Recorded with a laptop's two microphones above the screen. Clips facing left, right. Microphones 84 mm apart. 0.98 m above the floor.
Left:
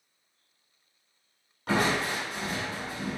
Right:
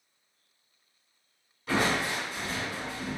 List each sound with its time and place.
1.7 s crushing: 70° left (ahead or behind), 1.6 m